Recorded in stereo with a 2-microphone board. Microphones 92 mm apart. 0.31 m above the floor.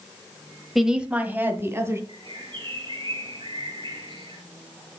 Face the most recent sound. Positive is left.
turn(degrees=-60)  # may be behind; listen again after turning